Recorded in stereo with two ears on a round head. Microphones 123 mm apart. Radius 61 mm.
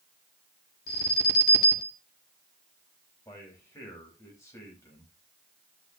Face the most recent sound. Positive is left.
turn(degrees=20)  # may be behind; listen again after turning